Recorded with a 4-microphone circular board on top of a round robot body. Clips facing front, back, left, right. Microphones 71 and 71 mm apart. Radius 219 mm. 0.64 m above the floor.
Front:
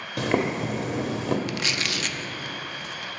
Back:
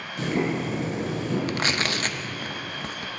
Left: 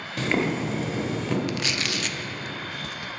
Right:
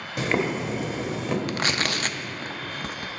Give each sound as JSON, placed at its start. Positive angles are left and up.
{"t": 0.2, "sound": "boiling", "azimuth_deg": -10, "distance_m": 1.1}
{"t": 1.5, "sound": "tearing paper", "azimuth_deg": -130, "distance_m": 0.5}